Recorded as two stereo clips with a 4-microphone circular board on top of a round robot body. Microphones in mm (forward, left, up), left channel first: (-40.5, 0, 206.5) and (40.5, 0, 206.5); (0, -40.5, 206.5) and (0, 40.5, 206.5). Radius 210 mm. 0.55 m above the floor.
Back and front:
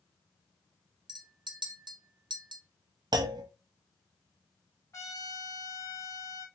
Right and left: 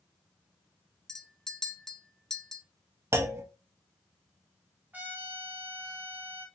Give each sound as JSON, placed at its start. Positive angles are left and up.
{"t": 1.1, "sound": "a clink", "azimuth_deg": -5, "distance_m": 1.0}
{"t": 3.1, "sound": "a clunk", "azimuth_deg": 35, "distance_m": 0.6}
{"t": 4.9, "sound": "a trumpet", "azimuth_deg": 150, "distance_m": 1.5}